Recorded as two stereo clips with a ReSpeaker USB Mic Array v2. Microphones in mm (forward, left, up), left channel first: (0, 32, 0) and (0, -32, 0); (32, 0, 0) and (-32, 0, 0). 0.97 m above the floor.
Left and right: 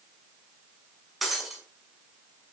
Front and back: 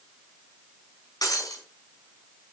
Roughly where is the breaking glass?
Ahead.